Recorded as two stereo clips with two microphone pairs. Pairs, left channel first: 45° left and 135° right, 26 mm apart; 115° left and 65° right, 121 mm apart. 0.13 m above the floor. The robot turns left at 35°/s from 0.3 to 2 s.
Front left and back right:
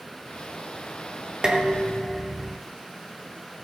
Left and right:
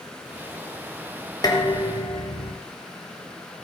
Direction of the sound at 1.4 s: 165° left.